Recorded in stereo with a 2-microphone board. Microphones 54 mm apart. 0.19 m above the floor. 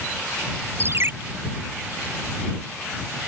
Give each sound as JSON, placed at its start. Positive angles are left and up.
{"t": 0.8, "sound": "a ringtone", "side_deg": -45}